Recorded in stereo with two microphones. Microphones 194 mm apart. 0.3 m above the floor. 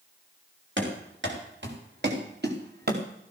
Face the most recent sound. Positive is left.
turn(degrees=-55)  # may be behind; listen again after turning